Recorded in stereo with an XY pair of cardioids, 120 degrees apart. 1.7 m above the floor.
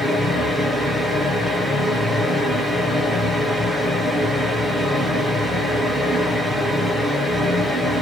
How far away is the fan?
About 1.1 m.